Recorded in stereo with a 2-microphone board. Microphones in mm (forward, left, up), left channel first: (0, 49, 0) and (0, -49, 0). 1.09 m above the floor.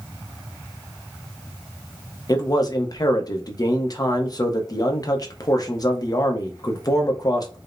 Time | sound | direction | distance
2.3 | a man speaking | 40° left (ahead or behind) | 0.7 m